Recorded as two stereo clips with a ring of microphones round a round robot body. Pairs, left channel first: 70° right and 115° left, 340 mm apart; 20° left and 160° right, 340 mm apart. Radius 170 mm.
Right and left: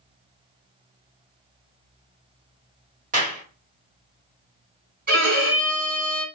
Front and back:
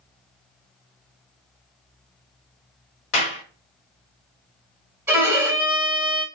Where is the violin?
125° left, 1.5 m.